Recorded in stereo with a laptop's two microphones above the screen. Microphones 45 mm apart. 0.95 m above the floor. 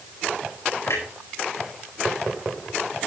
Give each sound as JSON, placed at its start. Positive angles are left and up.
{"t": 0.9, "sound": "a clunk", "side_deg": 85, "distance_m": 4.0}